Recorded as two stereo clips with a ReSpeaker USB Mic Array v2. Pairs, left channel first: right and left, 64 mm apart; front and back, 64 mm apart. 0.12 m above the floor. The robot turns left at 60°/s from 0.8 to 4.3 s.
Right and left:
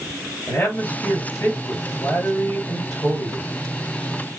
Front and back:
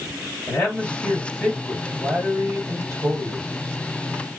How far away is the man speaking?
About 2.5 m.